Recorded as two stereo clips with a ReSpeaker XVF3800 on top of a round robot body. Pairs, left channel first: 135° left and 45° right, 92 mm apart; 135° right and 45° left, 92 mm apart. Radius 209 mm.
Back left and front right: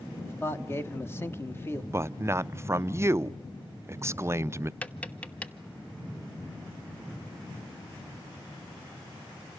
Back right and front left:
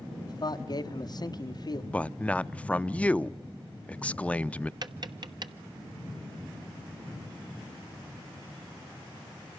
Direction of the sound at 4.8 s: 65° left.